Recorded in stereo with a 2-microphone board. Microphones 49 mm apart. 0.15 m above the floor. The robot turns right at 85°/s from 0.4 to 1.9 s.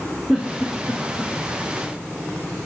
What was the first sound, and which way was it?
A giggle, 10° right (ahead or behind).